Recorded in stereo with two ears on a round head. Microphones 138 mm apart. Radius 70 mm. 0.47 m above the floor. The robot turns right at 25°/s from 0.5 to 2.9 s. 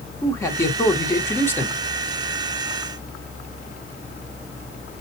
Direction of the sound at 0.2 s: 20° left (ahead or behind).